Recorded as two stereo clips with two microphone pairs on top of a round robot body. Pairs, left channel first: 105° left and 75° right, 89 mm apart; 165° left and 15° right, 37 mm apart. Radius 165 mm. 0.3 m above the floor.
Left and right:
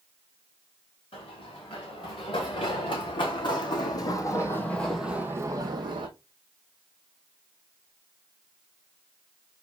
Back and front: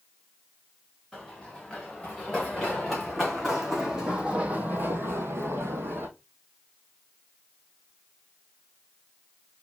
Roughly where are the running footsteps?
Left.